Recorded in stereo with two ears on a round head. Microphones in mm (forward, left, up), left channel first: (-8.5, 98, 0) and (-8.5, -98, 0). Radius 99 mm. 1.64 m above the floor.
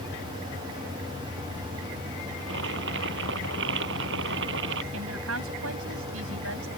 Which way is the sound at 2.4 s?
55° right (ahead or behind).